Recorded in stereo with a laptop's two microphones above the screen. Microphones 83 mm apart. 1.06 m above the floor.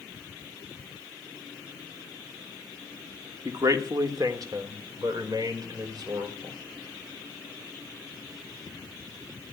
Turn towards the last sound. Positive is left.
turn(degrees=-55)  # may be behind; listen again after turning